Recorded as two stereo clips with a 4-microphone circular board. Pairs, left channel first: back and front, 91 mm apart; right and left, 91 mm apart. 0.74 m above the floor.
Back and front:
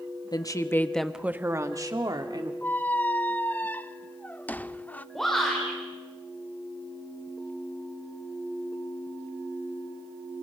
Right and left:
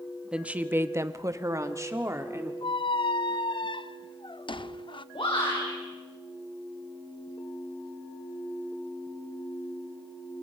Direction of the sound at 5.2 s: 95° right.